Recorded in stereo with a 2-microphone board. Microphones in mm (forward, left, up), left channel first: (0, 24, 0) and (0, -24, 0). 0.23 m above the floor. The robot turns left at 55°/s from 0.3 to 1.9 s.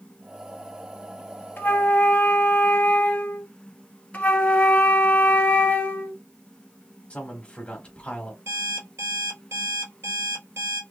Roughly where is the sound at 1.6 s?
Left.